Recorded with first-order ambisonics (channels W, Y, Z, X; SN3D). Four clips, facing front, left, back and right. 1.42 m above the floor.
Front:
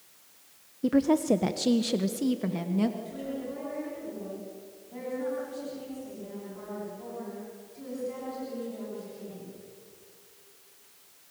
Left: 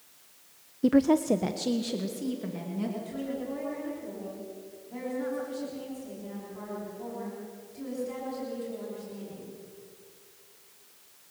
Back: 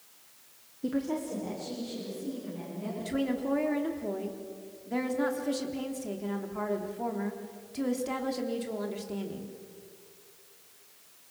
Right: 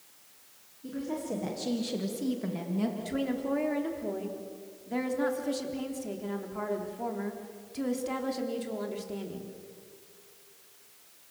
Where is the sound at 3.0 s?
140° right, 3.5 m.